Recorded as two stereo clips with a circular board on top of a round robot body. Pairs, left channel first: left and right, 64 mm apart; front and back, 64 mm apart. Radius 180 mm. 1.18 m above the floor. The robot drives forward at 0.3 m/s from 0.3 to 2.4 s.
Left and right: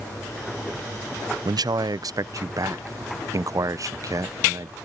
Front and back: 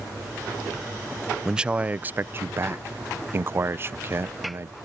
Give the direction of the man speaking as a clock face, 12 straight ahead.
3 o'clock.